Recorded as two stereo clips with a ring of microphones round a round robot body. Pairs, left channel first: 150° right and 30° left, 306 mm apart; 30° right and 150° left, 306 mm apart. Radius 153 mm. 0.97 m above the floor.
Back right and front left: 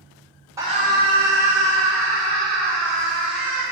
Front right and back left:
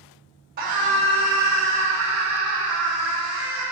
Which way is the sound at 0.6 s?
105° left.